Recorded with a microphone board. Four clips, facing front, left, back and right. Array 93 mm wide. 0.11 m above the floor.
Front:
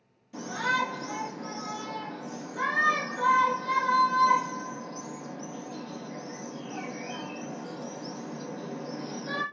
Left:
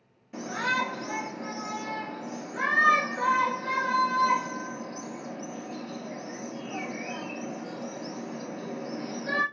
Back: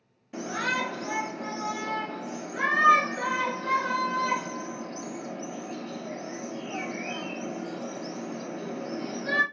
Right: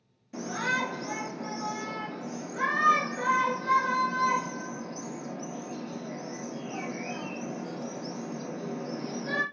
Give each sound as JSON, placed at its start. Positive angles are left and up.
{"t": 0.3, "sound": "a shout", "azimuth_deg": 155, "distance_m": 1.9}